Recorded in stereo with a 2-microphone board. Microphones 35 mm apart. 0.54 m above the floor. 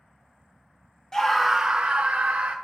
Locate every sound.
1.1 s a scream: 20° left (ahead or behind), 0.7 m; by 2.5 s 40° right (ahead or behind), 1.2 m